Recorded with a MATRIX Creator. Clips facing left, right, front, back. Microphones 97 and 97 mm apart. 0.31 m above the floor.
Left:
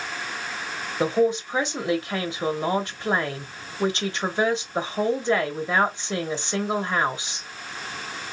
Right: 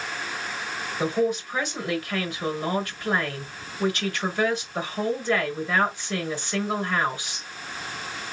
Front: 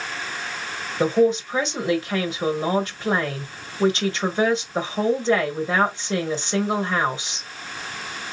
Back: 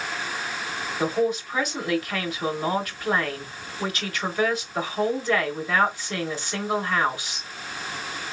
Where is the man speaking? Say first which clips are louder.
Left 3 dB, front 6 dB; 40° left, 1.3 m.